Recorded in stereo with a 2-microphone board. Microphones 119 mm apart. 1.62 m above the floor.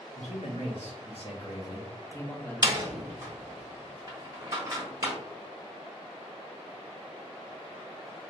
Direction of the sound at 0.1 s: 75° left (ahead or behind).